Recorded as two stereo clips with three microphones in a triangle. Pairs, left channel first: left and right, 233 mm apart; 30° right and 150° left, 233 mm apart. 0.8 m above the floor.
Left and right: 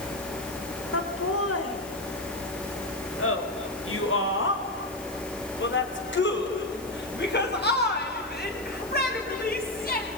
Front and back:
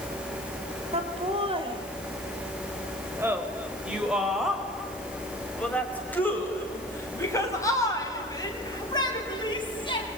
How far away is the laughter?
About 3.5 m.